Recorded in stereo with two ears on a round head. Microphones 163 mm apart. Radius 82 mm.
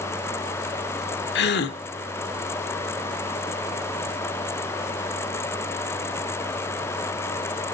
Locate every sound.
1.4 s a gasp: 65° left (ahead or behind), 1.2 m